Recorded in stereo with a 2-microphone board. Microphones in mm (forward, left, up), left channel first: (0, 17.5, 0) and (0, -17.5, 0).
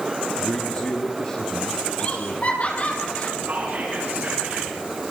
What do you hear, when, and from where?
0.4 s a man speaking: 30° left (ahead or behind), 2.5 m; by 3.0 s 50° left (ahead or behind), 6 m
2.0 s laughter: 40° left (ahead or behind), 7 m
3.4 s whispering: 55° right (ahead or behind), 9 m